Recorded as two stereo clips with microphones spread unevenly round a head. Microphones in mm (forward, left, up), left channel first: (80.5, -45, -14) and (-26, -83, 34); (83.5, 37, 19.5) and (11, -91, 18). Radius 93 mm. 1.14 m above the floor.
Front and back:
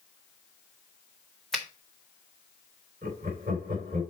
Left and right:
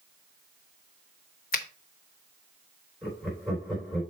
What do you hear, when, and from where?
1.5 s a finger snap: 110° left, 0.9 m
3.0 s laughter: 145° left, 4 m